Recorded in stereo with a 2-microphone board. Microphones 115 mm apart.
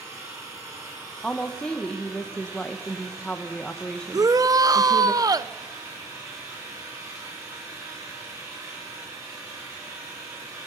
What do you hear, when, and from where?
0.0 s an engine running: 30° right (ahead or behind), 7.5 m
1.2 s a woman speaking: 5° left (ahead or behind), 1.1 m
4.1 s a shout: 35° right (ahead or behind), 0.5 m